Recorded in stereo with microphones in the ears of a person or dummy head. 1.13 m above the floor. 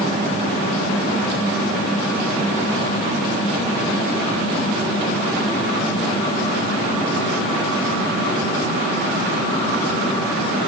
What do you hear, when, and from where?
Only background noise.